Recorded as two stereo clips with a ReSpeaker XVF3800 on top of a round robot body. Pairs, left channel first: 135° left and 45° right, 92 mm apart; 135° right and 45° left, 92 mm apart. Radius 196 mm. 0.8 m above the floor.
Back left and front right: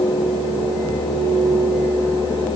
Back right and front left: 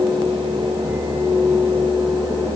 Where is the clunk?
No clunk in this recording.